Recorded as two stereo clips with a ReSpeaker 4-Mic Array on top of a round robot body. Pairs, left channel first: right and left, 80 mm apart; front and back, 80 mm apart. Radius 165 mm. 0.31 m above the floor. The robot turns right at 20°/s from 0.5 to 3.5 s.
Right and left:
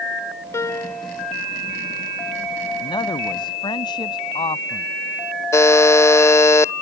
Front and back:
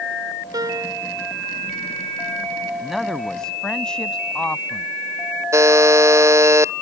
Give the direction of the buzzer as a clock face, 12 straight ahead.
4 o'clock.